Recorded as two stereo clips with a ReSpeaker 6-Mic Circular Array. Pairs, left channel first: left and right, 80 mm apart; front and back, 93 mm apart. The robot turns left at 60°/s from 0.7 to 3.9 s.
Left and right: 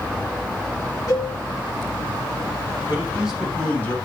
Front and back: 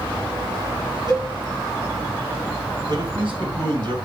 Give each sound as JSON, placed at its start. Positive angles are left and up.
{"t": 1.1, "sound": "a cowbell", "azimuth_deg": 45, "distance_m": 2.5}
{"t": 2.9, "sound": "a man speaking", "azimuth_deg": -150, "distance_m": 2.0}